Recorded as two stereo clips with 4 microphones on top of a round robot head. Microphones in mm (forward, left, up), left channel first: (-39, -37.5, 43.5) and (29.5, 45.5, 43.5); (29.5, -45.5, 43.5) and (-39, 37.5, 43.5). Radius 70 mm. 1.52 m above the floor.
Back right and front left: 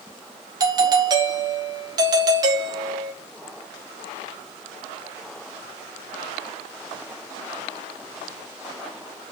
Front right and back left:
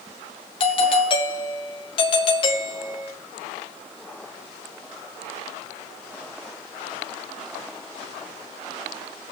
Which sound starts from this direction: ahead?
A doorbell, at 0.6 s.